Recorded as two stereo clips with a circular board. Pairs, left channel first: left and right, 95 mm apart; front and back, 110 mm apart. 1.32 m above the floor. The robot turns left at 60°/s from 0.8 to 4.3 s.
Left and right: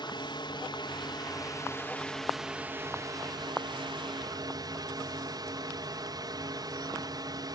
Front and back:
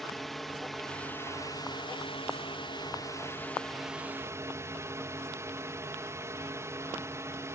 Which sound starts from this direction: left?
A drone, at 0.0 s.